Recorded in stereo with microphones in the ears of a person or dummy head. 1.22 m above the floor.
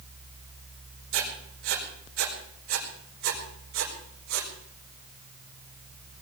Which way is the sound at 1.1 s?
65° right (ahead or behind).